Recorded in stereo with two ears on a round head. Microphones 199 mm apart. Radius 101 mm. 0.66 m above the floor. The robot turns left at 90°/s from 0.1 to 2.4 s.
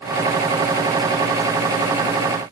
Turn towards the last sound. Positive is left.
No sound to turn to.